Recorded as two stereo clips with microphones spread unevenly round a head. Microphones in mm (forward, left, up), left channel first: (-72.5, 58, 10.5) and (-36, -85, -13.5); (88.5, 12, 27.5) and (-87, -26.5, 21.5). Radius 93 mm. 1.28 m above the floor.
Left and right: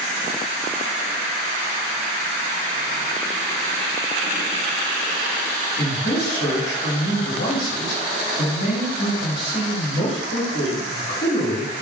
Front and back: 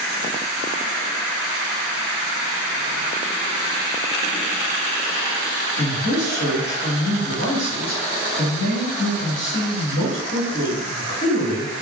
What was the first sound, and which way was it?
A man speaking, 50° left.